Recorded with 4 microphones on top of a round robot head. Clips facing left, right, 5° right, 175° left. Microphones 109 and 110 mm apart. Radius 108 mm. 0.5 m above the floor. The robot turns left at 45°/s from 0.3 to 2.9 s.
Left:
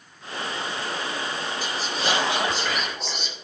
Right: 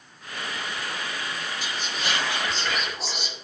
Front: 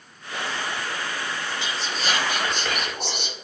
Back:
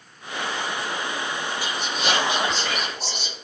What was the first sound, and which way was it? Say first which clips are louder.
Whispering: left 5 dB, back 3 dB; 55° left.